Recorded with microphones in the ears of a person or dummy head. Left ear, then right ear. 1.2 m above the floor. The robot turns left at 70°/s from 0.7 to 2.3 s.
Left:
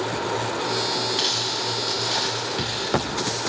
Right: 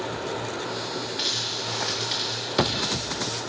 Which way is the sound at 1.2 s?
55° left (ahead or behind).